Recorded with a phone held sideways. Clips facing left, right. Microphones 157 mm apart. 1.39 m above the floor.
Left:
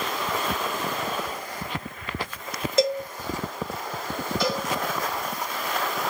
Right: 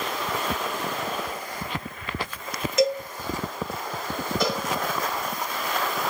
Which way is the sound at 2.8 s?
30° left (ahead or behind).